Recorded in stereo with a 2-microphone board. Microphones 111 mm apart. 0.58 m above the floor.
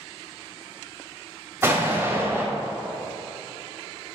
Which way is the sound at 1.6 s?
25° right (ahead or behind).